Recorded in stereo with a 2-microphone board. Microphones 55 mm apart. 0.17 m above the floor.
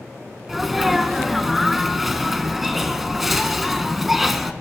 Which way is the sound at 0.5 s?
5° right (ahead or behind).